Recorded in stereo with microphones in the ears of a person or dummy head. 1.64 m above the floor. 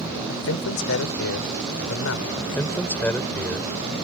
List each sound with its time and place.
0.3 s a man speaking: 70° left (ahead or behind)
2.4 s a man speaking: 10° left (ahead or behind)